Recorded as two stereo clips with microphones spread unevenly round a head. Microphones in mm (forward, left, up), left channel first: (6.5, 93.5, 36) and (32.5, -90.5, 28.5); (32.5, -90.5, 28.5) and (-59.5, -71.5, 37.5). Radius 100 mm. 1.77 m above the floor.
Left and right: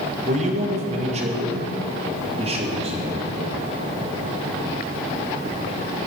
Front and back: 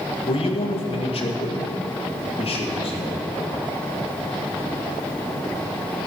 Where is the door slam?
I don't hear a door slam.